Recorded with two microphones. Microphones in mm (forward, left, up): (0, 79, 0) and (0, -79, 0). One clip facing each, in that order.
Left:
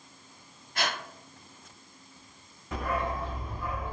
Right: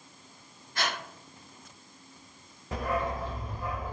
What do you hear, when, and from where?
0.8 s breathing: 65° left (ahead or behind), 1.4 m
2.7 s a dog barking: 35° right (ahead or behind), 0.9 m